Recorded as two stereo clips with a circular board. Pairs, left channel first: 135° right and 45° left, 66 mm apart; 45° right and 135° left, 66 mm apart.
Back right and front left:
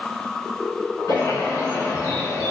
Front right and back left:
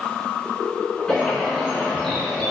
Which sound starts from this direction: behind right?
A bird, at 1.1 s.